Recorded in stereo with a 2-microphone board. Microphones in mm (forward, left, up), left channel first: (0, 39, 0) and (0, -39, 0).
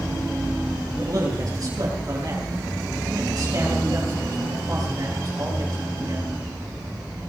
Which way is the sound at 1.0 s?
55° right (ahead or behind).